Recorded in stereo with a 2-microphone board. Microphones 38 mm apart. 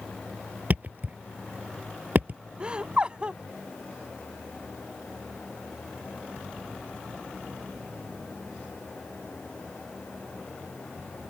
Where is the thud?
40° right (ahead or behind).